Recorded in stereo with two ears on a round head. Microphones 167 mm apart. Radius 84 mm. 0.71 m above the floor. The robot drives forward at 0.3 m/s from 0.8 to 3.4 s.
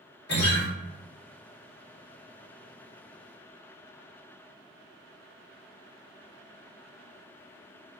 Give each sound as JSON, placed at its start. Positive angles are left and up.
{"t": 0.3, "sound": "a guitar", "side_deg": 50, "distance_m": 1.4}